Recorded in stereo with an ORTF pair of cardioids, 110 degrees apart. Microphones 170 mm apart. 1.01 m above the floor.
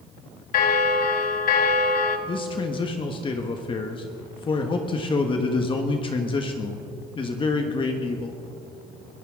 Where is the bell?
55° left, 1.5 m.